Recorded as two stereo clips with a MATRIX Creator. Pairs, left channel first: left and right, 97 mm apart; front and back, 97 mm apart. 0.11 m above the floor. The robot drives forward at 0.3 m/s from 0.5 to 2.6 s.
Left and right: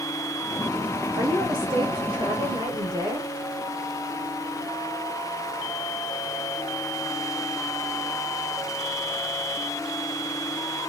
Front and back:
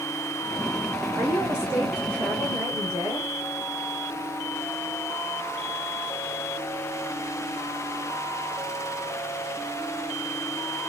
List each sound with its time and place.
1.1 s a woman speaking: 95° right, 1.7 m; by 3.3 s 115° right, 1.8 m